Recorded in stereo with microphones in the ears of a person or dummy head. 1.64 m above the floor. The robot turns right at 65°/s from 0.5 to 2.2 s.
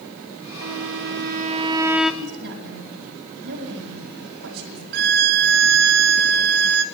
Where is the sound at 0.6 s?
95° right, 0.7 m; by 2.1 s 5° left, 0.7 m.